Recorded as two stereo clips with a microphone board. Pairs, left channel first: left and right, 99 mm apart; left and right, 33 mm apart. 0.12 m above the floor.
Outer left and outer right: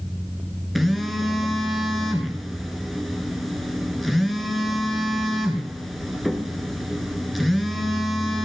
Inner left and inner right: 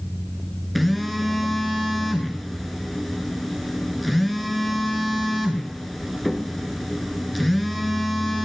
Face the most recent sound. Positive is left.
turn(degrees=0)  # may be behind; listen again after turning